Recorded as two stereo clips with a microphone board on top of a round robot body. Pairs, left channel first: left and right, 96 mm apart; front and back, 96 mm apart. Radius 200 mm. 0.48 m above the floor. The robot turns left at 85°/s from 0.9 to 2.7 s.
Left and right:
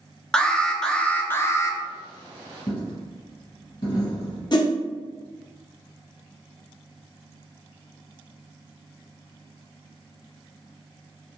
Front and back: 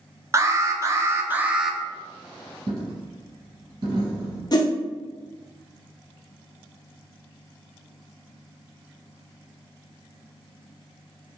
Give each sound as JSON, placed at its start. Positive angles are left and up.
{"t": 0.3, "sound": "an alarm", "azimuth_deg": 165, "distance_m": 0.7}
{"t": 2.7, "sound": "a dropped coin", "azimuth_deg": 140, "distance_m": 1.4}
{"t": 4.5, "sound": "a whoosh", "azimuth_deg": 45, "distance_m": 0.7}